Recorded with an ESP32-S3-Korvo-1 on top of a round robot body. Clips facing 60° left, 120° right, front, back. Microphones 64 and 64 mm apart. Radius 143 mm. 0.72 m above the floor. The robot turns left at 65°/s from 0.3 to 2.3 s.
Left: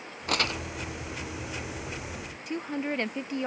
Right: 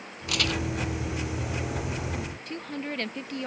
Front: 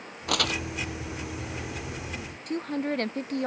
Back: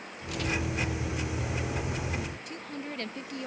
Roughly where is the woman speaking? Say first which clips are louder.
Left 6 dB, front 9 dB; ahead.